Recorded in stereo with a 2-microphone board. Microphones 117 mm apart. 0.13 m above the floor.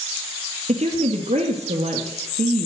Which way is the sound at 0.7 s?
70° right (ahead or behind).